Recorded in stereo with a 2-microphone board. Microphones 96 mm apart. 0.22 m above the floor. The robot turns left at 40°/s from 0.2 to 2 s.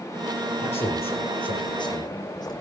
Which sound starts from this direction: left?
A man speaking, at 0.6 s.